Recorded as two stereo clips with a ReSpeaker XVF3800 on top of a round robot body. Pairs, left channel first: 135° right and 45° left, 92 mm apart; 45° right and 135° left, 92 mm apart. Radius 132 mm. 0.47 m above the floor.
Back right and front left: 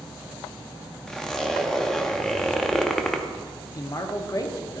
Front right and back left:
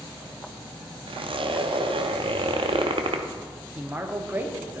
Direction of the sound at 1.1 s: 140° left.